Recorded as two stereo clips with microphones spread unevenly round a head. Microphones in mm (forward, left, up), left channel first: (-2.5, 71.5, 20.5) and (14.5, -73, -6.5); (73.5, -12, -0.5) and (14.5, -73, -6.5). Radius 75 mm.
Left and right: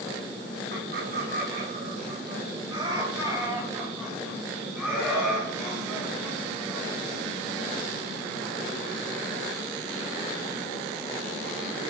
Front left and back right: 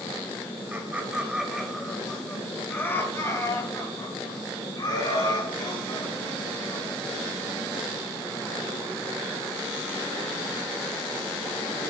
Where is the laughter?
65° right, 1.9 m; by 7.0 s 15° left, 4.5 m.